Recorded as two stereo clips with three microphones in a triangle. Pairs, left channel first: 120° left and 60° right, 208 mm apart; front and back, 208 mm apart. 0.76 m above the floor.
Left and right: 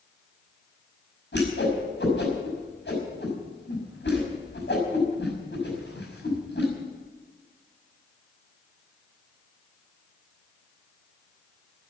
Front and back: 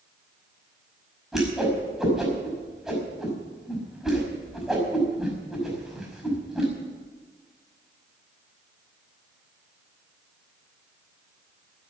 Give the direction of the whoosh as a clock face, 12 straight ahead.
9 o'clock.